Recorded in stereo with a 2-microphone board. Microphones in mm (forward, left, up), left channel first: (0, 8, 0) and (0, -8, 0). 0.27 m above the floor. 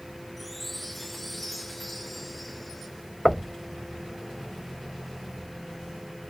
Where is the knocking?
5° right (ahead or behind).